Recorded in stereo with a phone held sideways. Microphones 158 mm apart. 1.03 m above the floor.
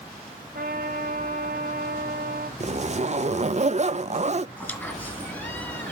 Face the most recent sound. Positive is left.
turn(degrees=15)  # may be behind; listen again after turning